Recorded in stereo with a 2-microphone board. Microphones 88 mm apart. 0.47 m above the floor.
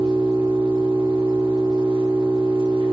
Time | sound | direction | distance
0.0 | an engine running | 65° right (ahead or behind) | 5.5 m